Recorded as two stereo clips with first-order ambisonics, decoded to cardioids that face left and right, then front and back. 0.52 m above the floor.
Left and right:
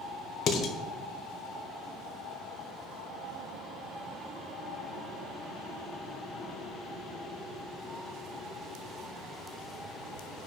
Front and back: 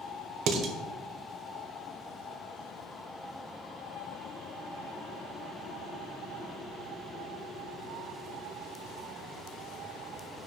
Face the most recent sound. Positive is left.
turn(degrees=140)